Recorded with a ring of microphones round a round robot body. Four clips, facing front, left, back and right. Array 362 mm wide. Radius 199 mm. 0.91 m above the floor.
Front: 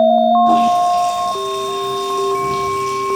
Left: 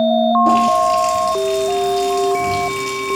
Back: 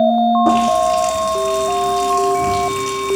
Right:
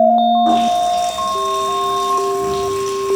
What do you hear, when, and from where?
0.5 s a running tap: 170° left, 1.4 m